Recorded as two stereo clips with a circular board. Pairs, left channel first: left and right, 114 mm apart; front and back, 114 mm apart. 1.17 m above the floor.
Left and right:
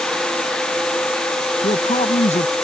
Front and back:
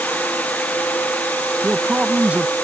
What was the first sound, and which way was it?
A man speaking, 100° left.